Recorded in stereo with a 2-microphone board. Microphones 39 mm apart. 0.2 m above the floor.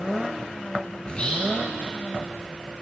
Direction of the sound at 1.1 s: 30° left (ahead or behind).